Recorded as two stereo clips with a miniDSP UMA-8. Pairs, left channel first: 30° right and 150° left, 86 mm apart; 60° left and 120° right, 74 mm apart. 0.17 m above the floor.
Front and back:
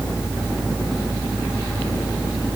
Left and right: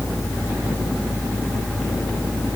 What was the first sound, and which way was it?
Only background noise.